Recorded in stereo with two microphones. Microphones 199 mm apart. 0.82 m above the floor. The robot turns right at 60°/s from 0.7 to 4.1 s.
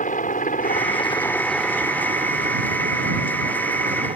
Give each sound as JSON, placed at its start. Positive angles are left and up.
{"t": 0.0, "sound": "a helicopter", "side_deg": 40}